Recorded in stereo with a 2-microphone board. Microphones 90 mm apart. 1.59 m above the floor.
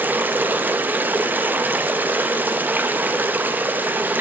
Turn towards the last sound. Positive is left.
turn(degrees=-20)  # may be behind; listen again after turning